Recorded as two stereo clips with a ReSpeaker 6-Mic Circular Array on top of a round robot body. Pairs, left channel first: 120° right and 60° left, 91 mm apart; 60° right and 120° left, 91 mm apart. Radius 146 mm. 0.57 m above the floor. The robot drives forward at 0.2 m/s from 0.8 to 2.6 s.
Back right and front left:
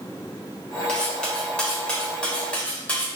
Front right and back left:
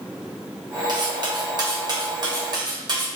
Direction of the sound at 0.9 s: 160° left.